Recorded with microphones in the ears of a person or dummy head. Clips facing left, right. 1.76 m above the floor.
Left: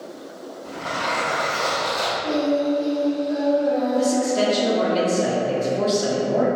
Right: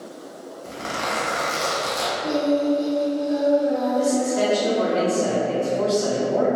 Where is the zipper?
60° right (ahead or behind), 0.7 m.